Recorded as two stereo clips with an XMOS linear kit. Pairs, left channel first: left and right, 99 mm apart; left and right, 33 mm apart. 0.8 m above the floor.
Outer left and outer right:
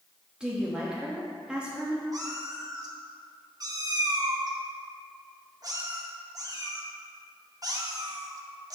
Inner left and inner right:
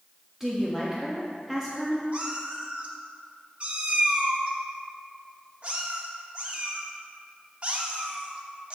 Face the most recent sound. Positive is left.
turn(degrees=-40)  # may be behind; listen again after turning